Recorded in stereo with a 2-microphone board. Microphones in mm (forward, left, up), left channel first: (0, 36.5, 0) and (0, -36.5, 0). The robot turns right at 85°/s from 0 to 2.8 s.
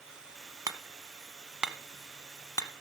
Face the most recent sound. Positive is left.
turn(degrees=70)  # may be behind; listen again after turning